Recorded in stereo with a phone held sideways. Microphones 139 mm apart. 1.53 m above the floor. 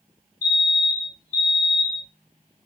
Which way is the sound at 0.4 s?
20° right (ahead or behind).